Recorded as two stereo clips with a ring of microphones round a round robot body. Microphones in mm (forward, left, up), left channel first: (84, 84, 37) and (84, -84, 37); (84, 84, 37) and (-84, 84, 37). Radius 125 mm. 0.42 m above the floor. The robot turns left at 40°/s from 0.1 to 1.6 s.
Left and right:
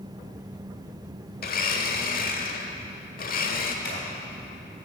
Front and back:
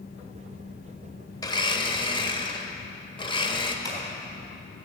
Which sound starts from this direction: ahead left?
Scissors, at 3.9 s.